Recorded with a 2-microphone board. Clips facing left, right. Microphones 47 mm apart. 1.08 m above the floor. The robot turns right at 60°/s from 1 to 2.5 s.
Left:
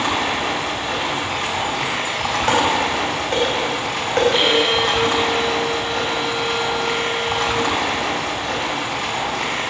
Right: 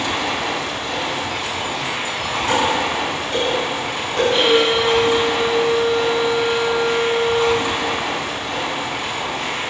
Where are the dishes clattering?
55° left (ahead or behind), 3.5 m.